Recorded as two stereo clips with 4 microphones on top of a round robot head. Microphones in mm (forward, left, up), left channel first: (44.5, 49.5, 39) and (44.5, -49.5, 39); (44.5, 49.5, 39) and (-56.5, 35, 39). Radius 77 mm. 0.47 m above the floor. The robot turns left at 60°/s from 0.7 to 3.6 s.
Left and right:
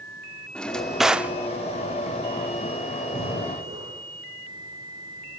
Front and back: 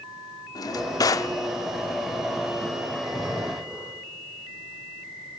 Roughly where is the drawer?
Ahead.